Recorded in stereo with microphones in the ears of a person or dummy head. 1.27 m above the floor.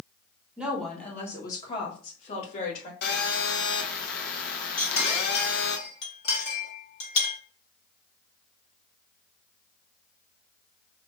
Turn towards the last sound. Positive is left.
turn(degrees=50)  # may be behind; listen again after turning